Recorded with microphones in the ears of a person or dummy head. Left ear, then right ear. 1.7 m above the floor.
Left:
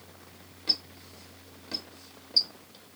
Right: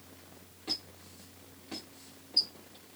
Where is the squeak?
25° left (ahead or behind), 1.5 m.